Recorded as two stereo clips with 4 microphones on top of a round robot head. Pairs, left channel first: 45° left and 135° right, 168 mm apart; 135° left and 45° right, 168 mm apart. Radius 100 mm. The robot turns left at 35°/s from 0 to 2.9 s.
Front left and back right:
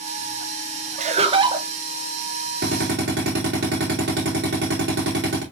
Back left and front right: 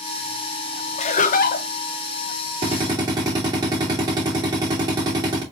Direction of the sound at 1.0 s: Straight behind.